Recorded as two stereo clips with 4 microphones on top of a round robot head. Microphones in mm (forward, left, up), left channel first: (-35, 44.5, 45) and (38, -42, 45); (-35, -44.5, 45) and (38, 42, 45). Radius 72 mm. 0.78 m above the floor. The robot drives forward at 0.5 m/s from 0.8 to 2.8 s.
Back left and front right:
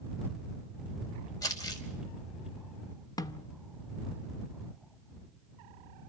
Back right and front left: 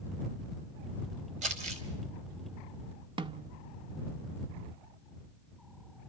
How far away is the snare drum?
About 0.7 m.